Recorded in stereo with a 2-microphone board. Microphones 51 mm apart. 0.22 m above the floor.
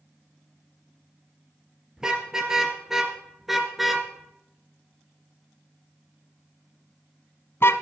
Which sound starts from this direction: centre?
A car horn, at 2.0 s.